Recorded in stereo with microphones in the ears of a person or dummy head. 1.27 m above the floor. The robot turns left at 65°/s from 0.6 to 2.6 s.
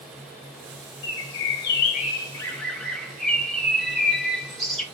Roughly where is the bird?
Left.